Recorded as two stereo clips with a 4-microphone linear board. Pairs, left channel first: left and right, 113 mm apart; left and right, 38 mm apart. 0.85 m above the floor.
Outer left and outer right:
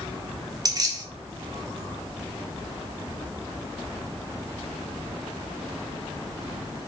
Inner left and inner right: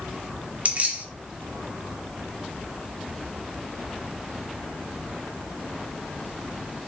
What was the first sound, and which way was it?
Keys jangling, 35° right (ahead or behind).